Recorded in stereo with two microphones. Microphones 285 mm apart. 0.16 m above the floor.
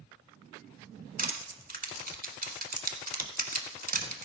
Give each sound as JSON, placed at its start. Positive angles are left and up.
{"t": 1.2, "sound": "crushing", "side_deg": -30, "distance_m": 1.5}